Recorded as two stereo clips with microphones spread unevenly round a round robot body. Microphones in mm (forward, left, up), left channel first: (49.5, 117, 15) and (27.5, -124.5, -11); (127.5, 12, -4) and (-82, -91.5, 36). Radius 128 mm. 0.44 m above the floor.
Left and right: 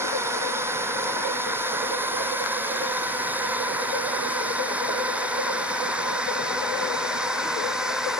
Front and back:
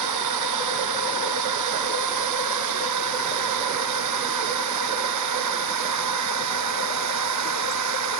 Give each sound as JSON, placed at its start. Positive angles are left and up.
{"t": 0.0, "sound": "a drone", "azimuth_deg": -175}